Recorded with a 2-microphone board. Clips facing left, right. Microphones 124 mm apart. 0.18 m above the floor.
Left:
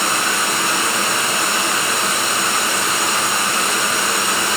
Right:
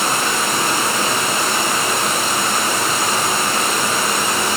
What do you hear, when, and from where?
0.0 s running water: 30° right (ahead or behind), 1.2 m